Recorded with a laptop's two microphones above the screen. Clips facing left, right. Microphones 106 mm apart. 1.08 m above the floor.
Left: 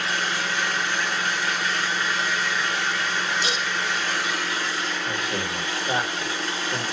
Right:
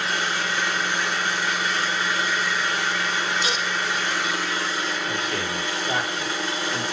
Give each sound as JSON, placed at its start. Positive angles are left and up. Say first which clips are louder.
{"t": 0.0, "sound": "an engine running", "louder": "right 1 dB", "side_deg": -15, "distance_m": 1.9}
{"t": 3.4, "sound": "dishes clattering", "louder": "right 1 dB", "side_deg": 50, "distance_m": 1.6}
{"t": 5.0, "sound": "a man speaking", "louder": "right 1 dB", "side_deg": 25, "distance_m": 2.0}